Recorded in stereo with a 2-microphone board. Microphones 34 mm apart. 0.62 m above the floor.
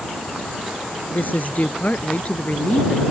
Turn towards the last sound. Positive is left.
turn(degrees=35)  # may be behind; listen again after turning